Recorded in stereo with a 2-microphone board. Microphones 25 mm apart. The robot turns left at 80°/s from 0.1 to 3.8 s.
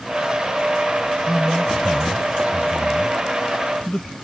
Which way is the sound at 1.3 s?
10° right (ahead or behind).